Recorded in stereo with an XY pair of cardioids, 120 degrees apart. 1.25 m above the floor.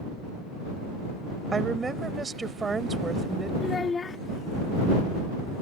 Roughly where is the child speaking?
Ahead left.